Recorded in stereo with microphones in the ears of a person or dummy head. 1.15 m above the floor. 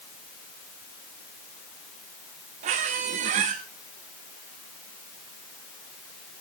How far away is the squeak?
About 0.8 m.